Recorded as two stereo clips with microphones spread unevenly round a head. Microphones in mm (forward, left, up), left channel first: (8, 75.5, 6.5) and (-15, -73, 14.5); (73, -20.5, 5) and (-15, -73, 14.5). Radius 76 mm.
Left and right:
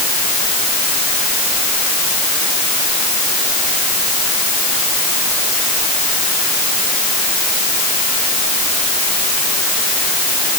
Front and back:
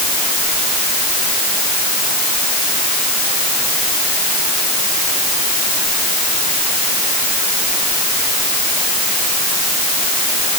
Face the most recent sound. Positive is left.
No sound to turn to.